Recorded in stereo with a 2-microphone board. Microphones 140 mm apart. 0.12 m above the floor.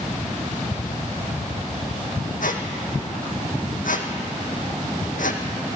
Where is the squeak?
75° left (ahead or behind), 1.6 m.